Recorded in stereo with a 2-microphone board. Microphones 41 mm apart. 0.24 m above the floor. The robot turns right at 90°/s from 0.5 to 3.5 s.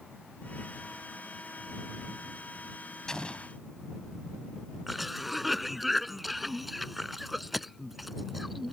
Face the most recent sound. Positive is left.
turn(degrees=0)  # may be behind; listen again after turning